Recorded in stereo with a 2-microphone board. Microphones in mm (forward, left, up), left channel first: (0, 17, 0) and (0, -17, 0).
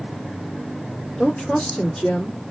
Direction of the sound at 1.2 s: 25° left (ahead or behind).